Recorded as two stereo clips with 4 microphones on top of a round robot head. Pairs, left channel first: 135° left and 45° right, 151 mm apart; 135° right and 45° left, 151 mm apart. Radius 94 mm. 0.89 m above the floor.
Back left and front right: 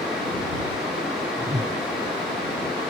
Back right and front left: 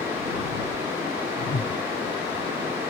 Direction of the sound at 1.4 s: 115° right.